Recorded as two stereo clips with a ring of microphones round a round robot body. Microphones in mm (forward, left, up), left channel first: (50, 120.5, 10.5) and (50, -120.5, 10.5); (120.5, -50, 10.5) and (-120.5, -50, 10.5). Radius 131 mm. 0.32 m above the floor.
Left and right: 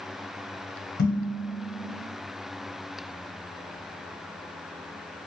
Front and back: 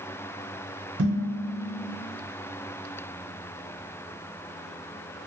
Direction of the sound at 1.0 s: 130° left.